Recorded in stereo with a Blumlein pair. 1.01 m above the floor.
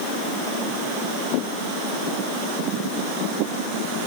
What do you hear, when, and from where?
Only background noise.